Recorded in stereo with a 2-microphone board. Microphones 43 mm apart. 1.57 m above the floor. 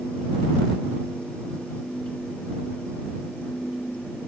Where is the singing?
No singing in this recording.